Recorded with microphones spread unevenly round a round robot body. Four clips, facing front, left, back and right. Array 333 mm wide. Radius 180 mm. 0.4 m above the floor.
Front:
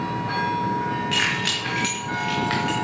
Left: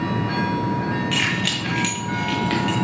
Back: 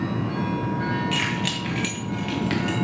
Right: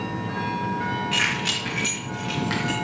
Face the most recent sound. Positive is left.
turn(degrees=175)